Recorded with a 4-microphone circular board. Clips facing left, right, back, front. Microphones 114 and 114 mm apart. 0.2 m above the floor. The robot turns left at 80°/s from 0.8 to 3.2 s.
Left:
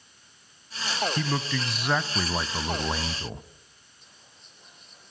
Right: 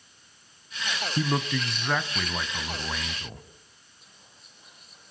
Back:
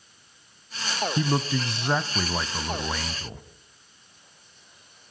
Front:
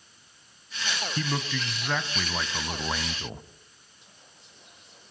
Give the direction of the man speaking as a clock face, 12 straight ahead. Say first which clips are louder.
Right 2 dB, back 6 dB; 5 o'clock.